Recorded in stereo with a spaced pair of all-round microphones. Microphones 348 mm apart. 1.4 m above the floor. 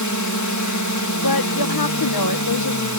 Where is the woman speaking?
85° left.